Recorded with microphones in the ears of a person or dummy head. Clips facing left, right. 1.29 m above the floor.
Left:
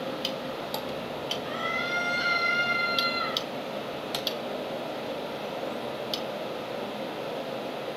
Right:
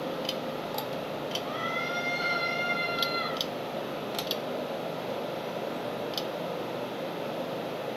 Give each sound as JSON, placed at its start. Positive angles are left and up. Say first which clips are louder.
{"t": 1.4, "sound": "a scream", "louder": "even", "side_deg": 20, "distance_m": 6.5}